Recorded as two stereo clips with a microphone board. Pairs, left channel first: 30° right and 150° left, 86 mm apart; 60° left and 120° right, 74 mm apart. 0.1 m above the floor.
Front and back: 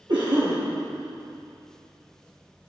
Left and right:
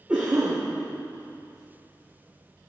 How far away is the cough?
About 2.5 m.